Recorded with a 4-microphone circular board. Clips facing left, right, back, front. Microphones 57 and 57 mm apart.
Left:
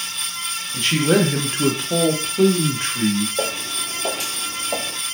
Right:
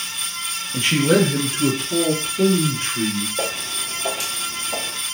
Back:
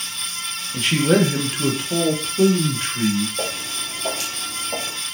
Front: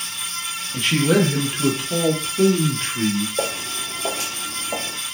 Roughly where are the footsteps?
Ahead left.